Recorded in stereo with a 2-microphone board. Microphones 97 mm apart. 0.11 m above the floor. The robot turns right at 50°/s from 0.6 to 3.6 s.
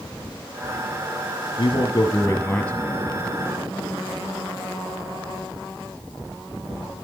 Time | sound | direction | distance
1.6 | a man speaking | 110° left | 2.5 m